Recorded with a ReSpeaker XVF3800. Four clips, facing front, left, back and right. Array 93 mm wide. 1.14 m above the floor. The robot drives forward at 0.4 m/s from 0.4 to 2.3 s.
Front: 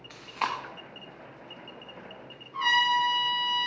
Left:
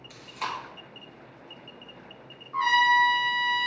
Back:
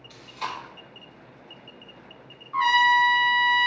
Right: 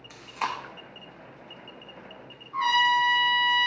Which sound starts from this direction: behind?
A trumpet, at 2.5 s.